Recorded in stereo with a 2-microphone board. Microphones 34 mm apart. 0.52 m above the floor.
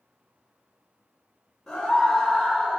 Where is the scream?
10° left (ahead or behind), 2.5 m; by 2.8 s 20° right (ahead or behind), 2.5 m.